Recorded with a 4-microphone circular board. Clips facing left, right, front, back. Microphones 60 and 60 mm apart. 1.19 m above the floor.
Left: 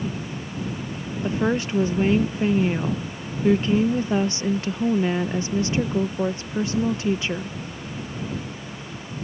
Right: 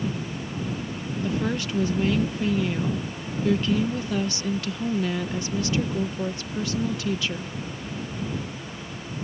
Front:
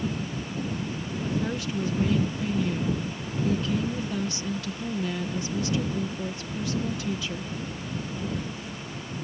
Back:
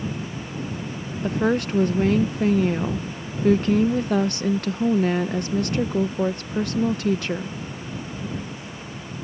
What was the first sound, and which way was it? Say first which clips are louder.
A woman speaking: left 5 dB, back 9 dB; 150° left.